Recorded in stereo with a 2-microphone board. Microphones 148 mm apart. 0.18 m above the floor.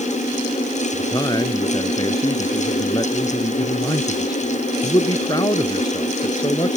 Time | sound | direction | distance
0.9 | a man speaking | 30° left (ahead or behind) | ?